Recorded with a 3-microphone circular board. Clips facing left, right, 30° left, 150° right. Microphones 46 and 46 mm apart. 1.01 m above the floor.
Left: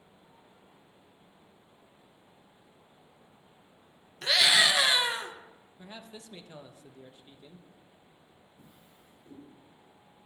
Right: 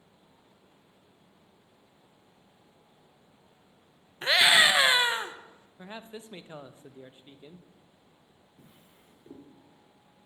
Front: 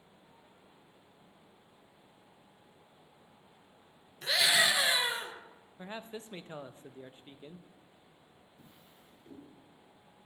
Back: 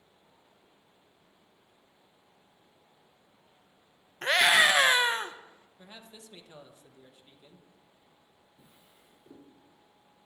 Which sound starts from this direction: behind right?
A scream, at 4.2 s.